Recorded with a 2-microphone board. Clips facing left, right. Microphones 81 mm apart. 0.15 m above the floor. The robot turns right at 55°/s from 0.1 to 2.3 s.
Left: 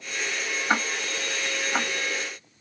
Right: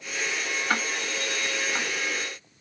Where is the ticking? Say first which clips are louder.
Left 3 dB; 15° left (ahead or behind), 0.6 m; by 1.9 s 40° left (ahead or behind), 0.6 m.